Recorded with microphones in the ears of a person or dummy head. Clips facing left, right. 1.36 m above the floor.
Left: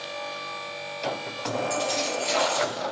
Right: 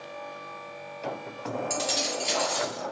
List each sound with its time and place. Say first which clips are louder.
1.7 s keys jangling: left 4 dB; 15° right (ahead or behind), 1.2 m; by 2.8 s 25° left (ahead or behind), 1.0 m